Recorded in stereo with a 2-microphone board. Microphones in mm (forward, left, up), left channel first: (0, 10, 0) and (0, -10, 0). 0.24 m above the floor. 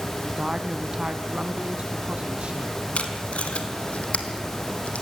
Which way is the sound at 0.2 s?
30° right (ahead or behind).